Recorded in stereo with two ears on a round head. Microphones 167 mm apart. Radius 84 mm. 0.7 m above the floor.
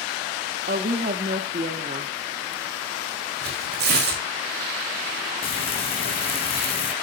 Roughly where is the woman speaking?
Right.